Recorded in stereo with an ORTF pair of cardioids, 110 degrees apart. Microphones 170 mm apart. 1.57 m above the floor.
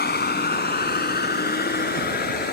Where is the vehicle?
70° left; by 2.5 s 60° left.